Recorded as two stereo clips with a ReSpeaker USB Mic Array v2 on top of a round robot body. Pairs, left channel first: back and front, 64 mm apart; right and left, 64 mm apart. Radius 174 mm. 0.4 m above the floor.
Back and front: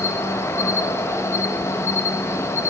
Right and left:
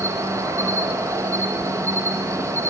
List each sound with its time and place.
0.0 s an insect: 130° left, 1.1 m